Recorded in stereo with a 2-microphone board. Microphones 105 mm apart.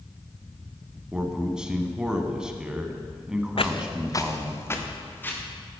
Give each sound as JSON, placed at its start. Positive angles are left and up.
{"t": 1.1, "sound": "a man speaking", "side_deg": -10, "distance_m": 1.2}
{"t": 3.6, "sound": "footsteps", "side_deg": 65, "distance_m": 0.6}